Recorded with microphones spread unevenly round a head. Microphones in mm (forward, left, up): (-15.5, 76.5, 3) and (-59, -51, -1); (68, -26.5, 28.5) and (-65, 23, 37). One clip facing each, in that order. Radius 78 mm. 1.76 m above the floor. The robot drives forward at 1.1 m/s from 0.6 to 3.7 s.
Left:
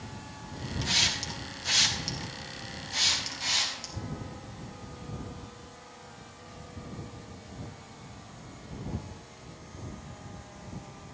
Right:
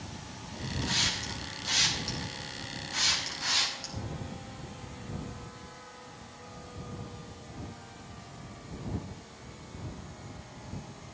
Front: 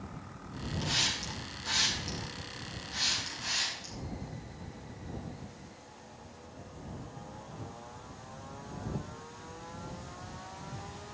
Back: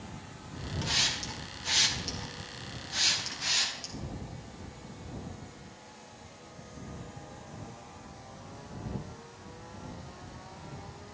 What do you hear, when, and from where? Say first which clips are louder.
0.8 s a hiss: right 1 dB, even; 70° left, 2.5 m; by 3.9 s 135° left, 3 m